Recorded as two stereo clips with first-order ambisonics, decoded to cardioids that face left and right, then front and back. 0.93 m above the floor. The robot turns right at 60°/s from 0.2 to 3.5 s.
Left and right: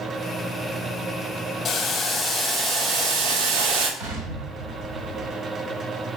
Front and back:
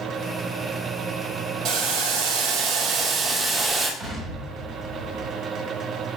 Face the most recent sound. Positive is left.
turn(degrees=-95)